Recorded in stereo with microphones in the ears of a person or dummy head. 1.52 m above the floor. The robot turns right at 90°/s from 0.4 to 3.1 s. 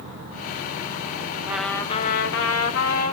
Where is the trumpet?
10° right, 1.3 m; by 3.1 s 140° left, 1.3 m.